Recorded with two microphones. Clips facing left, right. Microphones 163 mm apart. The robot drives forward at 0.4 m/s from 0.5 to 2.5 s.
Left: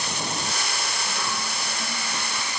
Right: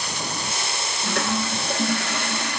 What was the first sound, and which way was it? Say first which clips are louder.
A toilet flushing: right 6 dB; 70° right (ahead or behind).